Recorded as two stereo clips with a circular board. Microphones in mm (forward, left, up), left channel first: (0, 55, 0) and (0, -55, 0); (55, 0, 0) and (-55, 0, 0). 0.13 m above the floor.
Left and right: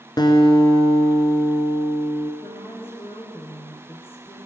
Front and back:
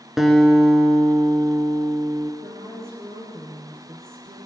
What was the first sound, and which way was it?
A guitar, 95° left.